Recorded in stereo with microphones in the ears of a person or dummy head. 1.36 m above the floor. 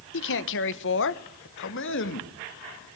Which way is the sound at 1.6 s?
60° left (ahead or behind).